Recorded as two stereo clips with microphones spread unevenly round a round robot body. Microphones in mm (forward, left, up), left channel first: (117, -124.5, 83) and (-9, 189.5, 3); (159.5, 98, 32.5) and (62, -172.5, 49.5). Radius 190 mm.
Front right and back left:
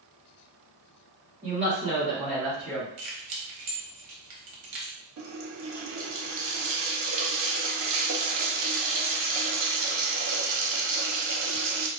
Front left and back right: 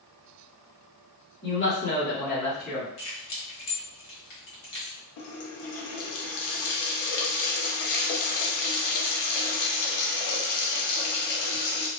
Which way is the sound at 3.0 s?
100° left.